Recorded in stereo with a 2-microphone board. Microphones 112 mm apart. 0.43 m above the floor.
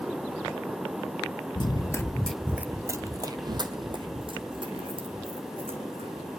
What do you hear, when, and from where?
1.6 s running footsteps: 45° left (ahead or behind), 0.5 m; by 6.3 s 55° right (ahead or behind), 2.5 m